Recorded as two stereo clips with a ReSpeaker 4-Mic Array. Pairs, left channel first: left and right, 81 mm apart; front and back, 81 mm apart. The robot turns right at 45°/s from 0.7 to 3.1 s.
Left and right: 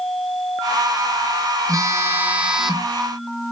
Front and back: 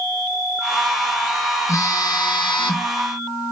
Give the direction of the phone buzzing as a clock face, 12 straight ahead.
2 o'clock.